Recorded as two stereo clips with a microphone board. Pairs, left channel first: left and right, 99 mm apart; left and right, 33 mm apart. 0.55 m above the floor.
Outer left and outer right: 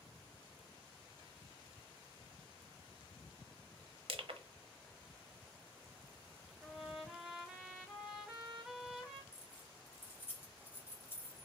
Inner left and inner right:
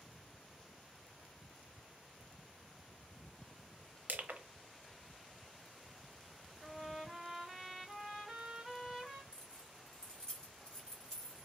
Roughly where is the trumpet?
Centre.